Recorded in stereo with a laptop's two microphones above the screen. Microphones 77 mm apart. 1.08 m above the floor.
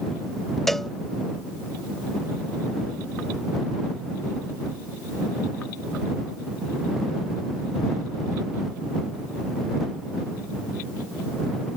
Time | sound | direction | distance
0.7 | a cowbell | 5° left (ahead or behind) | ?